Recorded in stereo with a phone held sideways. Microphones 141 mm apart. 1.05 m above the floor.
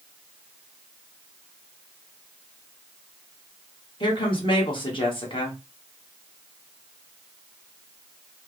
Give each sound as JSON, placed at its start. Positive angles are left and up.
{"t": 4.0, "sound": "a woman speaking", "side_deg": 35, "distance_m": 1.3}